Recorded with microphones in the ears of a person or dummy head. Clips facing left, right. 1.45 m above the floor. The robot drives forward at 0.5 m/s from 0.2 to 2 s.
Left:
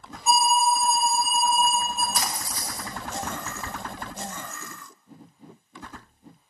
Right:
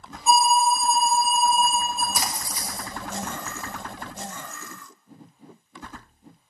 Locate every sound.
0.3 s an alarm: 10° left (ahead or behind), 2.5 m
2.1 s a splash: 15° right (ahead or behind), 0.9 m